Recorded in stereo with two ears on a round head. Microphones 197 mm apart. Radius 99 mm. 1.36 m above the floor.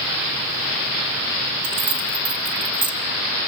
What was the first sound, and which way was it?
Keys jangling, 50° right (ahead or behind).